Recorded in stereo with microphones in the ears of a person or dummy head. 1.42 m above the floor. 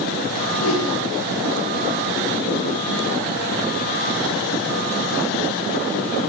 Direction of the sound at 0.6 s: 80° left.